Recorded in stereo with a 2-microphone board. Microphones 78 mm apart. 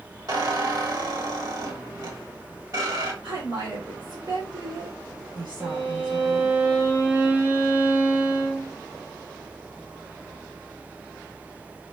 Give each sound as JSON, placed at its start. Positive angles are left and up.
{"t": 0.3, "sound": "a squeak", "side_deg": -55, "distance_m": 1.2}
{"t": 3.2, "sound": "a woman speaking", "side_deg": -65, "distance_m": 1.6}
{"t": 5.6, "sound": "a violin", "side_deg": -15, "distance_m": 1.0}